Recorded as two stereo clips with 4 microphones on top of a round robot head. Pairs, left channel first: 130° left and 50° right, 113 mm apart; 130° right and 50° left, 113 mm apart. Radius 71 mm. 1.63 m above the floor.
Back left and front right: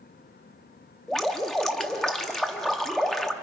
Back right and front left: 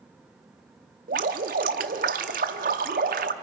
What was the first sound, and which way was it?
Dripping, 45° left.